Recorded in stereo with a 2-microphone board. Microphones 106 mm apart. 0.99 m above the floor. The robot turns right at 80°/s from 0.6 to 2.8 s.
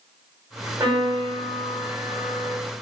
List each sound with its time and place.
0.8 s a piano: 35° right, 1.3 m; by 2.6 s 110° left, 1.3 m